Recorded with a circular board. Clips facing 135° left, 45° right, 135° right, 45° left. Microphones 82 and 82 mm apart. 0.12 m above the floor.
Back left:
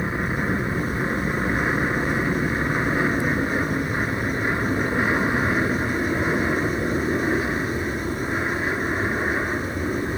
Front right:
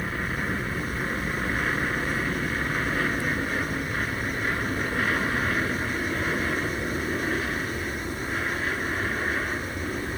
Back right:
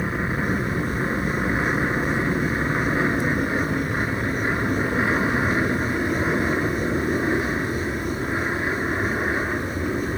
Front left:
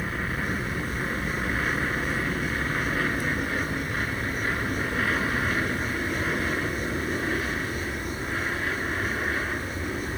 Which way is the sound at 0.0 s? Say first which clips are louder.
Back left 5 dB, back right 5 dB; 175° right.